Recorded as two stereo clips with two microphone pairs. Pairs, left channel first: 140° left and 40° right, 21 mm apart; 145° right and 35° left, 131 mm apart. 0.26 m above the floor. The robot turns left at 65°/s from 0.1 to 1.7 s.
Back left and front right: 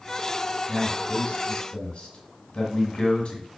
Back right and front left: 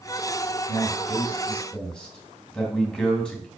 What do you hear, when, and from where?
0.7 s a man speaking: 160° right, 2 m; by 3.5 s 130° left, 2 m